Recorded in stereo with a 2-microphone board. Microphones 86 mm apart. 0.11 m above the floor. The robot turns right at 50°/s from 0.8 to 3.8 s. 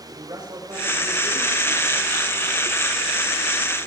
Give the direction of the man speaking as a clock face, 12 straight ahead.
2 o'clock.